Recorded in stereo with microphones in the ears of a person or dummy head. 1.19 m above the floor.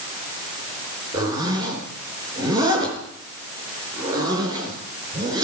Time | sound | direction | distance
1.1 | a zipper | 20° right (ahead or behind) | 4 m